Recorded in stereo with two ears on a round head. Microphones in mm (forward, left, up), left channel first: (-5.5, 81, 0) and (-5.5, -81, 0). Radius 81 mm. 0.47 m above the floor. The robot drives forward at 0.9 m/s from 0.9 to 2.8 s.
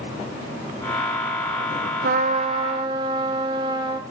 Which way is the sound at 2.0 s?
55° right (ahead or behind).